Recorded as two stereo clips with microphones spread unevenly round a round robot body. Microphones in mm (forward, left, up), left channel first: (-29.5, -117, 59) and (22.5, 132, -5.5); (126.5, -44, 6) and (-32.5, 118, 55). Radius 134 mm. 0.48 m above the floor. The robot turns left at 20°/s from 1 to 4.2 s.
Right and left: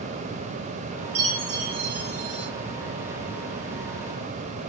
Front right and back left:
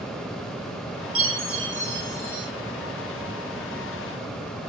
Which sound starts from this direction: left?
A chime, at 1.1 s.